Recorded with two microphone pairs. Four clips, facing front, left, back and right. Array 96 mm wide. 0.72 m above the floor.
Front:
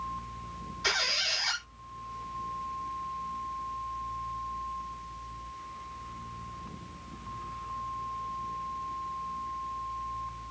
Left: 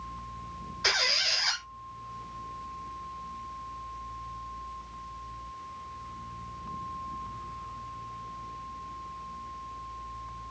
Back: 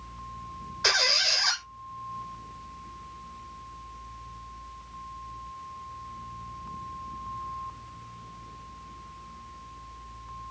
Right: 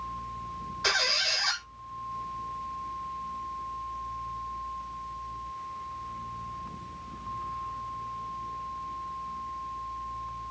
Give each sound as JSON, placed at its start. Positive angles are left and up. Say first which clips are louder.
{"t": 0.8, "sound": "a squeak", "louder": "right 1 dB, back 5 dB", "azimuth_deg": -175, "distance_m": 1.2}